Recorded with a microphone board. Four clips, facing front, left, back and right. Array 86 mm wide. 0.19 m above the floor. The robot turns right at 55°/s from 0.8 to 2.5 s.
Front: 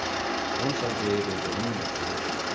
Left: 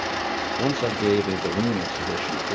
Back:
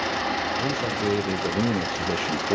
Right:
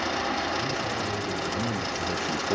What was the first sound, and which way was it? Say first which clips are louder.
A man speaking: left 6 dB, back 2 dB; 90° left.